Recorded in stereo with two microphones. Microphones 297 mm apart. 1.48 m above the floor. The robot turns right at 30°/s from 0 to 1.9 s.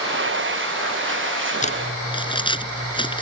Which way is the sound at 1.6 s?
25° left (ahead or behind).